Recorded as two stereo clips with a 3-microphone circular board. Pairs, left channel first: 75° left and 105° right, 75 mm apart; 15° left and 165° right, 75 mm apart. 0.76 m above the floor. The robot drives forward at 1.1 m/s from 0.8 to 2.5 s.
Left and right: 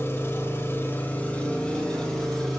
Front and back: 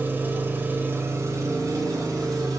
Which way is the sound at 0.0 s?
130° left.